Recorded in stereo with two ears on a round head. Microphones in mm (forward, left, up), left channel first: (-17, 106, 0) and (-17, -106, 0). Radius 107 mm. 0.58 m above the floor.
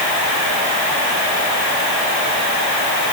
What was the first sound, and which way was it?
Only background noise.